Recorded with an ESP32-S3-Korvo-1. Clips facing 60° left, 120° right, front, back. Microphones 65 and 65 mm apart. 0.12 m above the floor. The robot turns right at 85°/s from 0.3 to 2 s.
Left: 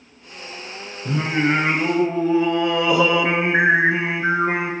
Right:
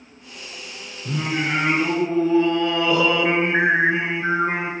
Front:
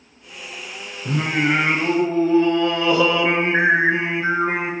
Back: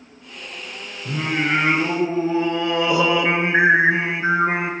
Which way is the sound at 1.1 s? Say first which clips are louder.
Left 4 dB, front 2 dB; 45° left.